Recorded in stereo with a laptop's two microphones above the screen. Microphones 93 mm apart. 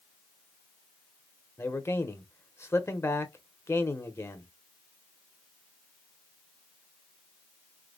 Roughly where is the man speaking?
Left.